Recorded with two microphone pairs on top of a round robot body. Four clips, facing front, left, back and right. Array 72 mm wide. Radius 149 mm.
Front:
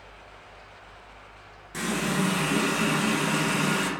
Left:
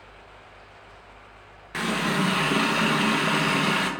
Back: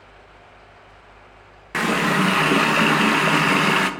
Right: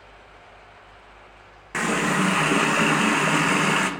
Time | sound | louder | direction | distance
1.7 | a running tap | right 3 dB, back 8 dB | 165° right | 0.6 m